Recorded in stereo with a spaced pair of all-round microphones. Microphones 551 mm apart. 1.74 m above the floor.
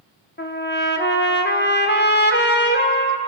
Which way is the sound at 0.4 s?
20° left (ahead or behind).